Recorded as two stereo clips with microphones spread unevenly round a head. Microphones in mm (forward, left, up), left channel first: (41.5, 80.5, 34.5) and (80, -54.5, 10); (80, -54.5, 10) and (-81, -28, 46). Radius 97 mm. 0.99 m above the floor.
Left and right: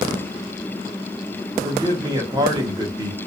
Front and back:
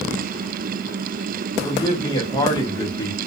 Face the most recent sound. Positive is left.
turn(degrees=-45)